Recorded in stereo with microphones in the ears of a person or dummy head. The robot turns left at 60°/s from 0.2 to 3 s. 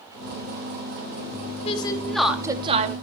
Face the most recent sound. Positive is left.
turn(degrees=-45)